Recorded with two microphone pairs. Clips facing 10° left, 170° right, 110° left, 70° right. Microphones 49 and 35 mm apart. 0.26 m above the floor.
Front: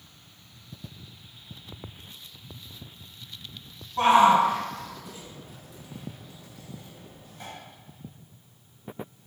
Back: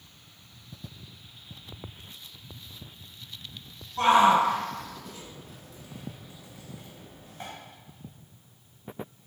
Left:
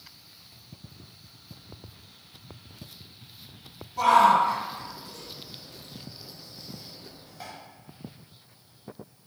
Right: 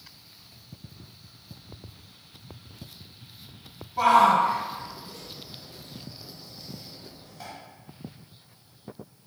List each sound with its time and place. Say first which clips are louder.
4.0 s a shout: front 2 dB, even; 30° right, 1.7 m; by 7.5 s straight behind, 1.5 m